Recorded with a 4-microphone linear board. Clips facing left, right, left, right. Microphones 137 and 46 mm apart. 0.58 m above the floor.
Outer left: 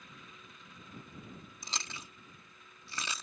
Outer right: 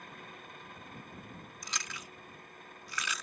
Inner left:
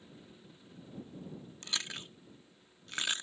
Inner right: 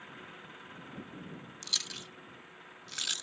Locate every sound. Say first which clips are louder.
0.0 s an engine running: outer right 6 dB, inner right 7 dB; 60° right (ahead or behind)
1.6 s chewing: even, inner left 1 dB; 30° left (ahead or behind)